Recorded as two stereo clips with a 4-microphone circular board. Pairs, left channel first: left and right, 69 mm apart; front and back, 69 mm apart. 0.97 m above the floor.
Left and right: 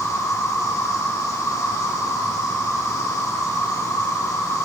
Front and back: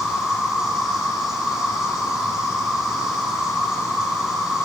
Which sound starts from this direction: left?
An insect, at 0.0 s.